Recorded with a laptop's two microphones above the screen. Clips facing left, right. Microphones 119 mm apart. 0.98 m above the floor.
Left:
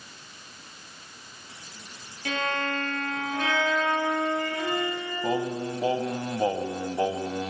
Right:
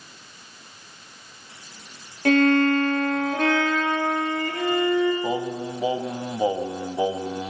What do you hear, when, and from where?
2.2 s a violin: 55° right (ahead or behind), 9 m
5.2 s singing: 10° right (ahead or behind), 1.0 m